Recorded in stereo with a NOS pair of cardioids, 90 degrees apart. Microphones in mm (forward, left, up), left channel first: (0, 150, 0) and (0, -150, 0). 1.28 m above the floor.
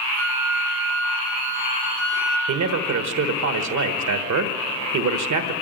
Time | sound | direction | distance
0.1 | a flute | 70° left | 3.5 m
2.5 | a man speaking | 65° right | 1.3 m